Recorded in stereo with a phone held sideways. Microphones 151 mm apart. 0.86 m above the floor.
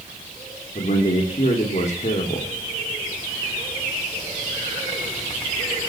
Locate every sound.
0.8 s a man speaking: 50° left (ahead or behind), 2.5 m